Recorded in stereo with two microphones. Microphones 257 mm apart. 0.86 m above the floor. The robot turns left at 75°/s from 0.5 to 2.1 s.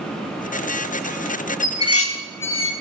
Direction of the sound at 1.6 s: 85° left.